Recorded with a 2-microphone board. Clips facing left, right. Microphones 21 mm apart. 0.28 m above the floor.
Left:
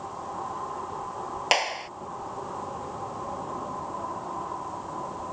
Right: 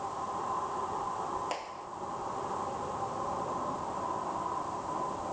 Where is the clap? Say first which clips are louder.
Left 13 dB; 75° left (ahead or behind).